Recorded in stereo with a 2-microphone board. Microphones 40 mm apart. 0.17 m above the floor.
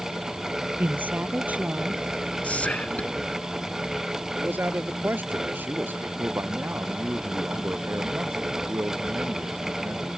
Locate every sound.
0.8 s a woman speaking: 50° right (ahead or behind); by 2.0 s 35° right (ahead or behind)
2.4 s whispering: 35° left (ahead or behind)
4.3 s a man speaking: 55° right (ahead or behind)
6.2 s a man speaking: 75° right (ahead or behind)